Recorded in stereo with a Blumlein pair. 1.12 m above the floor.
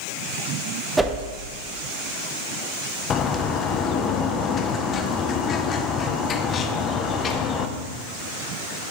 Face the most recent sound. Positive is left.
turn(degrees=25)